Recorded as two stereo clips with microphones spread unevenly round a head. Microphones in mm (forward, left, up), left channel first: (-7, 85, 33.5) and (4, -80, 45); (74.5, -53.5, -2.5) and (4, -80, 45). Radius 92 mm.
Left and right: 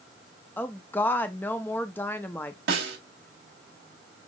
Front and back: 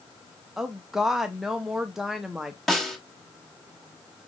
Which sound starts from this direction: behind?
A woman speaking, at 0.6 s.